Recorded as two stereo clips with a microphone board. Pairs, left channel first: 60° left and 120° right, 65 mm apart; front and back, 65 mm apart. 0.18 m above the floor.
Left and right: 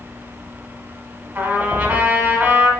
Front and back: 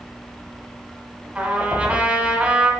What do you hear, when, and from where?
1.4 s a trumpet: 140° right, 1.5 m